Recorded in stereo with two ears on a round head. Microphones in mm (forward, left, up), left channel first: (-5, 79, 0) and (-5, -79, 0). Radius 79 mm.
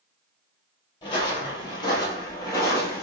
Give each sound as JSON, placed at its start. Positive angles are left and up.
{"t": 1.0, "sound": "footsteps", "side_deg": 25, "distance_m": 1.7}